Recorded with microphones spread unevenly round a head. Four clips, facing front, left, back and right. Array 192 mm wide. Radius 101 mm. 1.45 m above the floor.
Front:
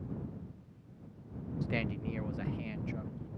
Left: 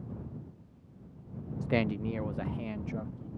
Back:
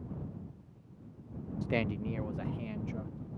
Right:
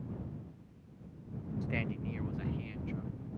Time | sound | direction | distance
1.6 | a man speaking | 125° left | ?